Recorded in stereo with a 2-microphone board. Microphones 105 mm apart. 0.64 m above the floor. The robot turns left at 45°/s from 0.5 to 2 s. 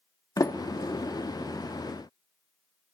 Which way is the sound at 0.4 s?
35° left (ahead or behind).